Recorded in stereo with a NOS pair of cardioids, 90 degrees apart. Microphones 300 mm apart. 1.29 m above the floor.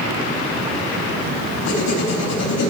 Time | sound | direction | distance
1.6 | writing | 65° left | 3.5 m